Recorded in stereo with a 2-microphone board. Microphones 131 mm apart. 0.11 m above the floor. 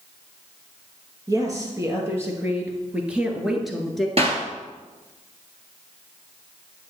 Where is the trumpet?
I don't hear a trumpet.